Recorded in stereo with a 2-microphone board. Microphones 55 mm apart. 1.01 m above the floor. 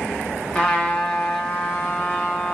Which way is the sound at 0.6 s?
20° left (ahead or behind).